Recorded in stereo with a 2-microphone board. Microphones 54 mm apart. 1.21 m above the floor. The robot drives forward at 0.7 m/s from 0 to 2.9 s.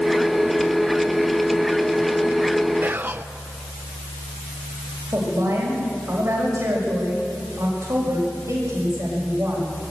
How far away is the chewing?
No chewing in this recording.